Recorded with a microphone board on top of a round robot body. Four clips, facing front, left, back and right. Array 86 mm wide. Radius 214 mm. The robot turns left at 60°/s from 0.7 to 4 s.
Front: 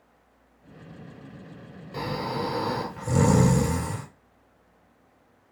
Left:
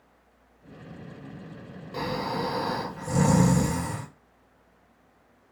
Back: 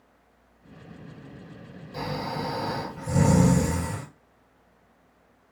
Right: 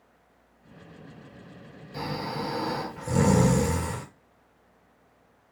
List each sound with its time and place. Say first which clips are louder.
1.9 s snoring: left 3 dB, front 1 dB; 55° left, 2 m; by 4.1 s 65° right, 2 m